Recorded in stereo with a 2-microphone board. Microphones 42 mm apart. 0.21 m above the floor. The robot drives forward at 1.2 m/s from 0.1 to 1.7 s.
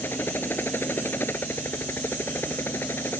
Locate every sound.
0.0 s a helicopter: 55° left (ahead or behind); by 3.2 s 60° left (ahead or behind)